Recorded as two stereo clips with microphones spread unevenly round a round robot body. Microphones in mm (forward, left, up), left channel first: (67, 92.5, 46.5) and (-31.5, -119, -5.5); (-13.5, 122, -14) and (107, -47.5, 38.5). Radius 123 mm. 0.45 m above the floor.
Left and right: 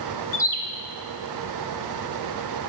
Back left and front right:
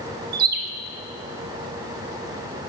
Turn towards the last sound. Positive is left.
turn(degrees=-10)